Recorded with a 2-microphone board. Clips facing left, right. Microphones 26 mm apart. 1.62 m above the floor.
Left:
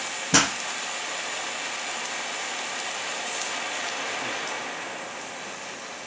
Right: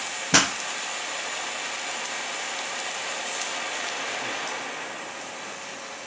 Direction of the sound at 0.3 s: 20° right (ahead or behind).